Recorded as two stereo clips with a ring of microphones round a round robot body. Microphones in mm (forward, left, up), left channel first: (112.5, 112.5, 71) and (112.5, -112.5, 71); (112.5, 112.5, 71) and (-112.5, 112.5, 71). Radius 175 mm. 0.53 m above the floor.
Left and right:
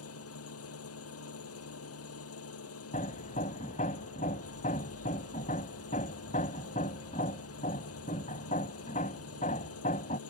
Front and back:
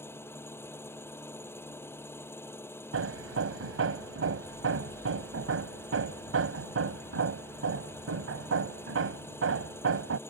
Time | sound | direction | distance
0.0 | an engine running | 80° left | ?
2.9 | hammering | 160° left | ?